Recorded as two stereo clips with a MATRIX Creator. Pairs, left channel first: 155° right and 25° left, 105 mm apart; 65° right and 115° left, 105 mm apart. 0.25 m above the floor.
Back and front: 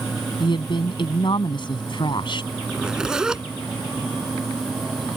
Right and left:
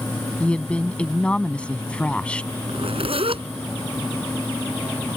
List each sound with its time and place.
0.4 s a woman speaking: 145° right
2.7 s a zipper: 105° left